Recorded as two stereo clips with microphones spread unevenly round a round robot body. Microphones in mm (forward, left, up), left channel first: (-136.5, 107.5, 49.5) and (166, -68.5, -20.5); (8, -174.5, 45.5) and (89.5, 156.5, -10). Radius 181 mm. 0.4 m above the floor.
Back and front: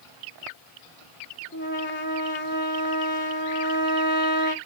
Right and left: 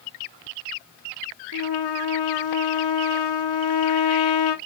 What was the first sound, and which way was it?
A trumpet, 155° right.